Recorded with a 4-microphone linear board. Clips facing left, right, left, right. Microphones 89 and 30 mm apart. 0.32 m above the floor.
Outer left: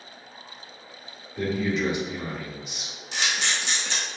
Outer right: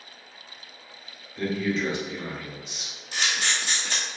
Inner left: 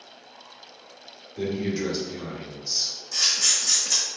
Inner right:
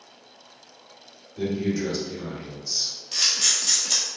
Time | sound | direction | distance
1.4 | a man speaking | 15° left (ahead or behind) | 0.9 m
3.1 | a camera shutter | 45° right (ahead or behind) | 1.7 m